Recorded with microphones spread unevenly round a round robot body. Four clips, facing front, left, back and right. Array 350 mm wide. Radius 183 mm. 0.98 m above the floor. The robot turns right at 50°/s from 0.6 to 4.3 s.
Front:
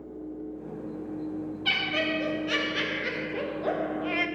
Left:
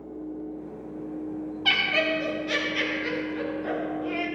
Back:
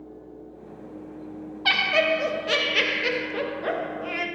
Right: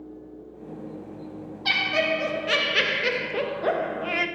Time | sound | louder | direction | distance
1.6 | laughter | right 2 dB, back 9 dB | 160° left | 1.0 m